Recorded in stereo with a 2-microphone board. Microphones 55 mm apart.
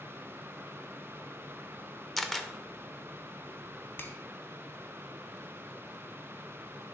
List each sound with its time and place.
2.2 s a camera shutter: 5° left (ahead or behind), 0.7 m
4.0 s a finger snap: 40° left (ahead or behind), 1.1 m